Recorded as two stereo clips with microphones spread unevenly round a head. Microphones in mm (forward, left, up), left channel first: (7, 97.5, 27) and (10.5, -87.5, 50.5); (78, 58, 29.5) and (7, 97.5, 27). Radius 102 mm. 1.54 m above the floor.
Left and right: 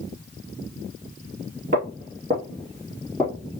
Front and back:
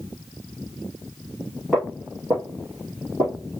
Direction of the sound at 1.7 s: 130° right.